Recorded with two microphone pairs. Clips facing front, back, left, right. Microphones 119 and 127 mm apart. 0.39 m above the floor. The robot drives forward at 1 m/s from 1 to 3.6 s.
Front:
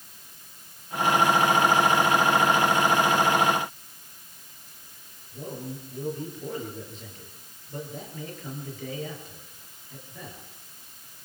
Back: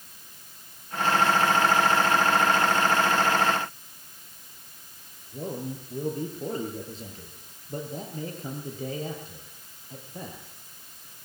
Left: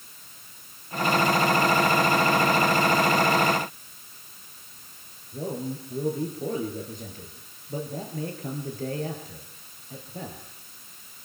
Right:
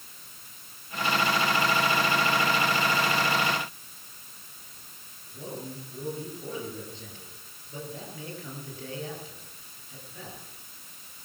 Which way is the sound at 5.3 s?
130° left.